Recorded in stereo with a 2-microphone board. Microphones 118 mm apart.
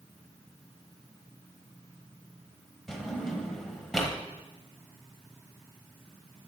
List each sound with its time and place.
2.9 s a drawer: 5° left (ahead or behind), 1.1 m